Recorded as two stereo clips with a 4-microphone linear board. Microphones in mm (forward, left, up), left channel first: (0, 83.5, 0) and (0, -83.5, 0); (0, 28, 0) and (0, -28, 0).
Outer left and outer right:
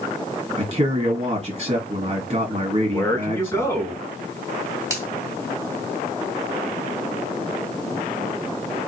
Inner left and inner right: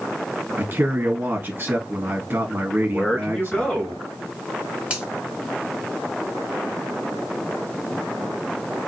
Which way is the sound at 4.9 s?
20° right (ahead or behind).